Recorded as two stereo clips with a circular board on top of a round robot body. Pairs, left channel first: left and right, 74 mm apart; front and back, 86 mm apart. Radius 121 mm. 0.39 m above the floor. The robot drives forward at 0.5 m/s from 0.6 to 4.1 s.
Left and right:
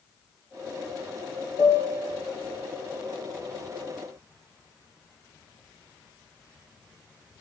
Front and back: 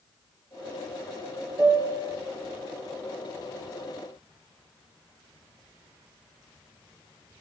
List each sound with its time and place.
1.6 s a piano: 125° left, 3.5 m; by 2.2 s 130° left, 3.5 m